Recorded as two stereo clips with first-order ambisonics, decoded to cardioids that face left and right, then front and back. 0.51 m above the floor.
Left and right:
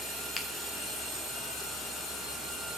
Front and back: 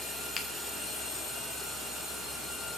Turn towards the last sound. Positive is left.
turn(degrees=40)